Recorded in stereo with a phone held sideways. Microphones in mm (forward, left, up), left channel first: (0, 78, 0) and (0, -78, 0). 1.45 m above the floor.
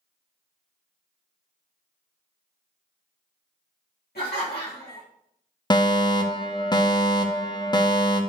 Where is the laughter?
85° left, 2.5 m.